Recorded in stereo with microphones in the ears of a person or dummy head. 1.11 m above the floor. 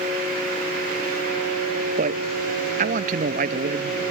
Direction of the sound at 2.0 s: 45° right (ahead or behind).